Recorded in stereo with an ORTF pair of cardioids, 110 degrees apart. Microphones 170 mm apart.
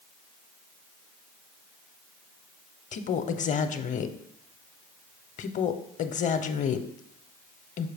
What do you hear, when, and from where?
2.9 s a woman speaking: 45° left, 0.7 m